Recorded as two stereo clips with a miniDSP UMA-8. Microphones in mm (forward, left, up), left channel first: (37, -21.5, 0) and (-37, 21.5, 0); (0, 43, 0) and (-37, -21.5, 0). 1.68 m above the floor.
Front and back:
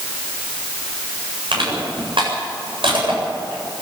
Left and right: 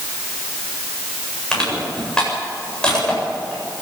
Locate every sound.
1.5 s crushing: 140° left, 8 m